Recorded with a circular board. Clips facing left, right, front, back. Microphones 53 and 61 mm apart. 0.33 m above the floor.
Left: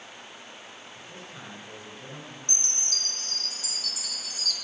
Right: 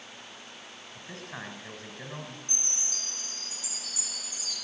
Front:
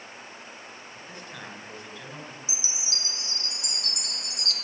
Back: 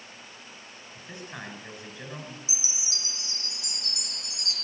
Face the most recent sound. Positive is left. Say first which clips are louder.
# left 3 dB, front 2 dB
turn(degrees=115)